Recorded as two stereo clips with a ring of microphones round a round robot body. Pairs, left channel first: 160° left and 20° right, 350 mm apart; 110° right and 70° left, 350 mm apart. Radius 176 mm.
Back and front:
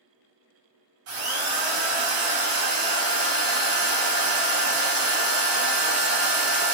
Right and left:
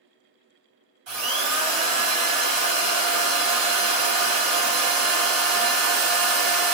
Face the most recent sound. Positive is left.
turn(degrees=20)